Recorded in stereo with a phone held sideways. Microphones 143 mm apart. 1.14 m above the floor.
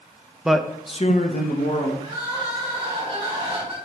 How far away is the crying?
About 3.5 m.